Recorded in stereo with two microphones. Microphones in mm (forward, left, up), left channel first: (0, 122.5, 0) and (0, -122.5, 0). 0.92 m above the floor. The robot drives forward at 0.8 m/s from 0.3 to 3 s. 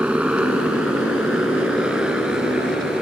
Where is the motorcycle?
5° right (ahead or behind).